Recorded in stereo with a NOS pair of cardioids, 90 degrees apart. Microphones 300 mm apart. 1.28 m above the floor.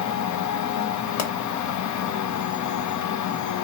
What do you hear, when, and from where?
0.0 s a machine running: 70° left, 0.7 m
1.2 s a pop: 60° left, 1.2 m